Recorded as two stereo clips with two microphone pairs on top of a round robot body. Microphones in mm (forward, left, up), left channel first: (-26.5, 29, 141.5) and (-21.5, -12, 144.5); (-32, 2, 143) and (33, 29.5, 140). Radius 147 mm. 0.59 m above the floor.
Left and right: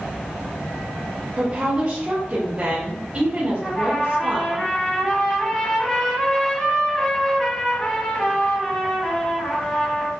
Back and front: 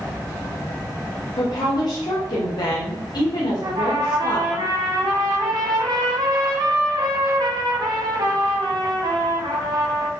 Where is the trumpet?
5° left, 2 m.